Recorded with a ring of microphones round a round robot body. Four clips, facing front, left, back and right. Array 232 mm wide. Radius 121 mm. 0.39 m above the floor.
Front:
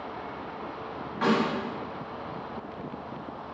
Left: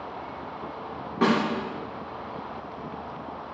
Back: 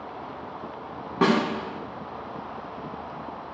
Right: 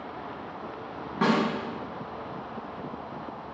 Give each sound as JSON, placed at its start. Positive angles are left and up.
{"t": 1.2, "sound": "a snare drum", "azimuth_deg": 180, "distance_m": 2.0}